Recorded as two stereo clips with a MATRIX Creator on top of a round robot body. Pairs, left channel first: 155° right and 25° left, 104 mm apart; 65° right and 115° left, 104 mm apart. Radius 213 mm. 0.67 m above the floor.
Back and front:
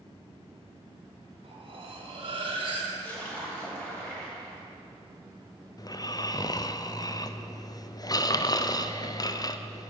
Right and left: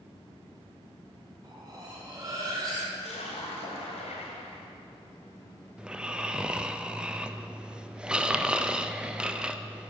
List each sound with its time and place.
1.4 s cutlery clinking: 65° left, 2 m
2.9 s a splash: 80° right, 2.5 m
5.8 s snoring: 170° right, 0.8 m